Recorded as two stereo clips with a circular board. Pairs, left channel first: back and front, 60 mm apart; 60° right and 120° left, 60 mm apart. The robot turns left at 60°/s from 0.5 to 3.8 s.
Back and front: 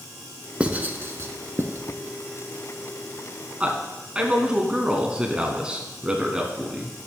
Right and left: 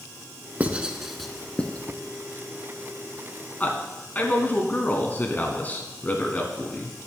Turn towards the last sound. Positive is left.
turn(degrees=-55)